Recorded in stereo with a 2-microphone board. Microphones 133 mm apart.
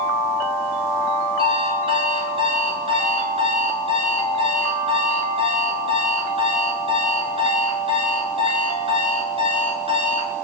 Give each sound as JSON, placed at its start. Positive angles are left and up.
{"t": 1.4, "sound": "an alarm clock", "side_deg": -45, "distance_m": 3.0}